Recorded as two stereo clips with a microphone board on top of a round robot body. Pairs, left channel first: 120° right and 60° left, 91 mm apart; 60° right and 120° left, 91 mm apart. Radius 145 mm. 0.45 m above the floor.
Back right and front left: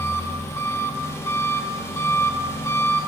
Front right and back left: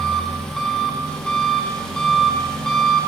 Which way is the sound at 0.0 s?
140° right.